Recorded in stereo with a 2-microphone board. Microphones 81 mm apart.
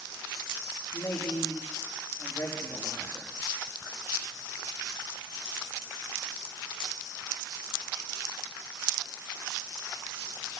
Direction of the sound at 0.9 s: 30° left (ahead or behind).